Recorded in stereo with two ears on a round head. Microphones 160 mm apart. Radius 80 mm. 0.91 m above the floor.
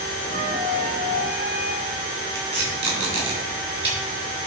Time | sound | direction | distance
0.3 | a flute | 50° right (ahead or behind) | 1.6 m
2.4 | tape being pulled | 30° right (ahead or behind) | 3.5 m